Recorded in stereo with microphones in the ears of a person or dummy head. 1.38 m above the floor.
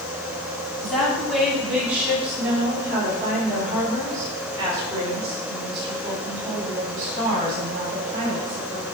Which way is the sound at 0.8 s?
Centre (ahead or behind).